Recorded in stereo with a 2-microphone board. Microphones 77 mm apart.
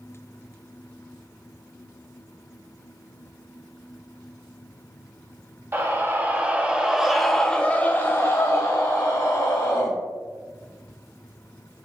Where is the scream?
30° right (ahead or behind), 1.3 m; by 9.9 s 50° left (ahead or behind), 1.7 m.